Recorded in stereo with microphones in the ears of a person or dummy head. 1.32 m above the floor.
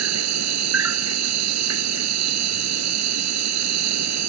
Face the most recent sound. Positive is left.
turn(degrees=-80)